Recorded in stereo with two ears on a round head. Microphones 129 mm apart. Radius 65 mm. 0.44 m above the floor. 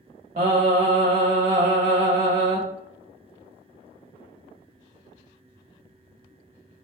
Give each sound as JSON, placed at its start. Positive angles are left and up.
{"t": 0.4, "sound": "singing", "side_deg": -45, "distance_m": 0.7}